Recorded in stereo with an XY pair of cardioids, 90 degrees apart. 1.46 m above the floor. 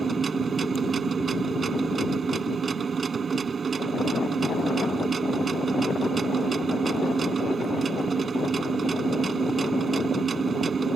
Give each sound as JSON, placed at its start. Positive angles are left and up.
{"t": 0.0, "sound": "a machine running", "azimuth_deg": -45}